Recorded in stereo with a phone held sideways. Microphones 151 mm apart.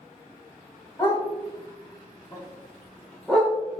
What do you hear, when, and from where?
1.0 s a dog barking: 25° left (ahead or behind), 1.3 m; by 3.5 s centre (ahead or behind), 1.2 m